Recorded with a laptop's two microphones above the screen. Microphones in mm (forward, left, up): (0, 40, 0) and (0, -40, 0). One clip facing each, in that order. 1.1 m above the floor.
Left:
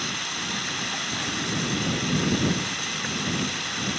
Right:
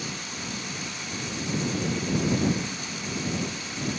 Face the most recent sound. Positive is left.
turn(degrees=80)